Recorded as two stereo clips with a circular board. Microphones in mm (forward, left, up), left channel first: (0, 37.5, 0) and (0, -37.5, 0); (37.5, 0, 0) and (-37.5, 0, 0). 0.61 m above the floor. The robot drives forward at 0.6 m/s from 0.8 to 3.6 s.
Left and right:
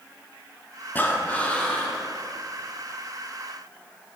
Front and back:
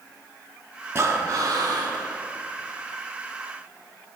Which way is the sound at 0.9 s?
145° left.